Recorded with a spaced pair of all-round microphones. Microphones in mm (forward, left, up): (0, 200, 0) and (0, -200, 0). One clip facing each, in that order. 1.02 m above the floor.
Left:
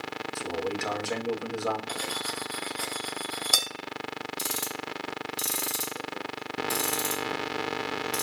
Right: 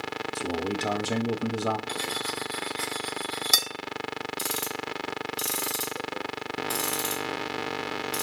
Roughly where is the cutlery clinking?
Right.